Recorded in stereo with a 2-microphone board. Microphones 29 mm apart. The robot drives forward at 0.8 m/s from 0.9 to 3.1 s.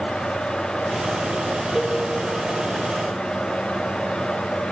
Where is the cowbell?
5° left (ahead or behind), 3 m.